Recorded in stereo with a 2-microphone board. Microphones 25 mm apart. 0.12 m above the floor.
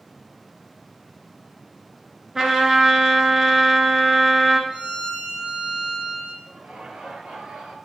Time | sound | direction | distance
2.4 | a trumpet | 20° right (ahead or behind) | 0.9 m
4.7 | a violin | 45° right (ahead or behind) | 3 m
6.5 | laughter | 55° right (ahead or behind) | 1.8 m